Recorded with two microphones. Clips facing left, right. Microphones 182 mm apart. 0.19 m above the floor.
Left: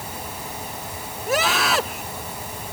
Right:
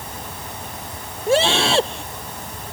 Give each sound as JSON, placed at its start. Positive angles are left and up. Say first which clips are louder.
{"t": 1.3, "sound": "a scream", "louder": "right 5 dB", "side_deg": -30}